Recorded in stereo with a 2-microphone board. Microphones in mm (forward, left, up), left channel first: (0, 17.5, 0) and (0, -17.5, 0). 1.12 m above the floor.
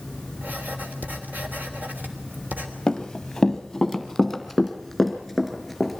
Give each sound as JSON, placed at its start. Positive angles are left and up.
{"t": 0.4, "sound": "writing", "side_deg": -55, "distance_m": 3.5}
{"t": 2.9, "sound": "running footsteps", "side_deg": 15, "distance_m": 1.2}